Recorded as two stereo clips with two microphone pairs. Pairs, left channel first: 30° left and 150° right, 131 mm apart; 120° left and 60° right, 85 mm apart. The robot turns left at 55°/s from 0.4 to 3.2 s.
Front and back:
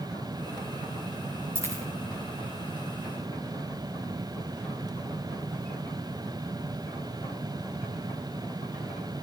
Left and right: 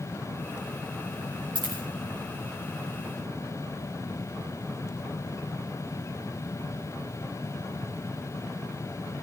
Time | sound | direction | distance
1.6 | a dropped coin | 80° right | 5 m